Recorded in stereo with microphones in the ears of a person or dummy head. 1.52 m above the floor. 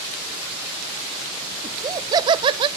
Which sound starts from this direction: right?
Laughter, at 1.6 s.